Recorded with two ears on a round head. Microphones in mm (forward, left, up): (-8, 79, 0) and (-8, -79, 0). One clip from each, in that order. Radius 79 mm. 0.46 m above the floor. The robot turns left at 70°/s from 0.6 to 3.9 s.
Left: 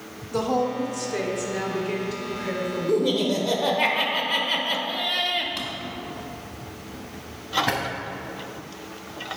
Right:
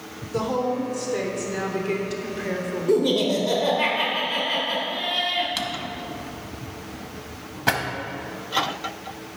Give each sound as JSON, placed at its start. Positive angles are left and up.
{"t": 0.3, "sound": "a woman speaking", "azimuth_deg": 60, "distance_m": 1.0}
{"t": 2.9, "sound": "laughter", "azimuth_deg": -145, "distance_m": 1.3}
{"t": 5.6, "sound": "a drawer", "side_deg": -25, "distance_m": 0.7}